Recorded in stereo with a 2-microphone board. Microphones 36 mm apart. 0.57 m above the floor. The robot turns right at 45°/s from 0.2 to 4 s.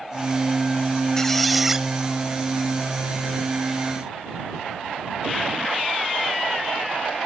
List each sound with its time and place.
1.2 s a squeak: 165° left; by 1.9 s 165° right